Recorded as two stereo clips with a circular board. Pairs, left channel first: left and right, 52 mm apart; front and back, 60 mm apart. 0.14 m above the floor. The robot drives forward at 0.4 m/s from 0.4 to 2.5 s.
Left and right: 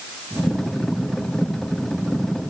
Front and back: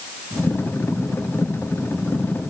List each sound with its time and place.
Only background noise.